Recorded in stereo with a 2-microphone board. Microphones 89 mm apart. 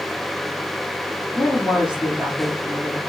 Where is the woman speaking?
10° right (ahead or behind), 1.8 m.